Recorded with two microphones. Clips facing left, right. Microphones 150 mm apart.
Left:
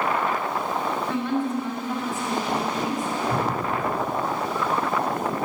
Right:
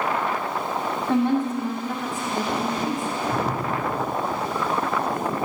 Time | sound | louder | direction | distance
1.1 | a woman speaking | right 7 dB | 30° right (ahead or behind) | 1.2 m
3.3 | dripping | right 1 dB | 55° left (ahead or behind) | 2 m